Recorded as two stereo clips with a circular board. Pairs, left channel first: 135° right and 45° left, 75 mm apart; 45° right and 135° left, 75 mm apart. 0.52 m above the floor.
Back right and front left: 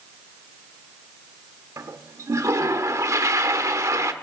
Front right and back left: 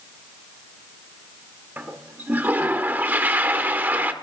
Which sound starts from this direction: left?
A toilet flushing, at 1.8 s.